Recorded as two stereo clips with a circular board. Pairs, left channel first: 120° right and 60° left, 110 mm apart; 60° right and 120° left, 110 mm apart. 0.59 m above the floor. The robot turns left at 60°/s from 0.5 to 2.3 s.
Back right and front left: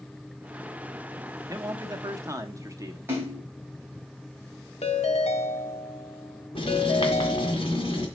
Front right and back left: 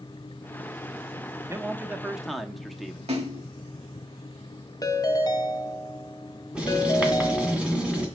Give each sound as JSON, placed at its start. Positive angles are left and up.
{"t": 1.5, "sound": "a man speaking", "azimuth_deg": 75, "distance_m": 0.9}
{"t": 3.1, "sound": "a splash", "azimuth_deg": 130, "distance_m": 2.5}
{"t": 4.8, "sound": "a ringtone", "azimuth_deg": -115, "distance_m": 1.1}
{"t": 6.5, "sound": "writing", "azimuth_deg": -160, "distance_m": 2.0}